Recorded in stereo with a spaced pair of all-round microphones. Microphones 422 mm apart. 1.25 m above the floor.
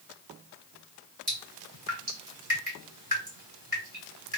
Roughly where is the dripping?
Right.